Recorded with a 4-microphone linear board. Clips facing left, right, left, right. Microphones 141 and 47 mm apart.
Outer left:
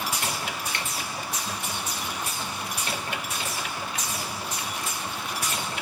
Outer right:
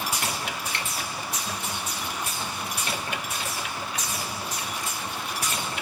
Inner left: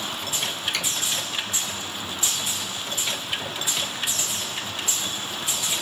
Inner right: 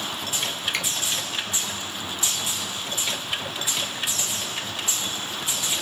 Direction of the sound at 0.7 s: 30° right (ahead or behind).